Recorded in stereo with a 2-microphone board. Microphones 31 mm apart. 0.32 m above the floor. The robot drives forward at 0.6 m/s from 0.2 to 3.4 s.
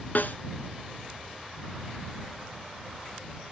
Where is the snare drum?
70° left (ahead or behind), 0.7 m; by 0.4 s 60° left (ahead or behind), 0.8 m.